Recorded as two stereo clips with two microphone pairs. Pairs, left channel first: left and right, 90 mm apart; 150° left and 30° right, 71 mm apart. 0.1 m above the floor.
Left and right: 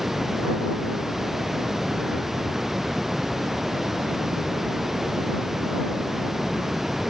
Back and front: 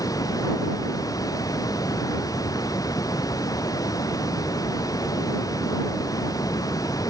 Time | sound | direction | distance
0.0 | running water | 175° right | ?